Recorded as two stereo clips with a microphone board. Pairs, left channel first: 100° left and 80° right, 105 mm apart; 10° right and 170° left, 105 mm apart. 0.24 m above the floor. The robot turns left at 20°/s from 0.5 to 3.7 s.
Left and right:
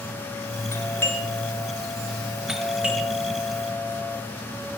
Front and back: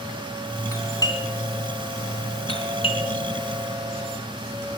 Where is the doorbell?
40° left, 3.5 m; by 4.2 s 20° right, 3.5 m.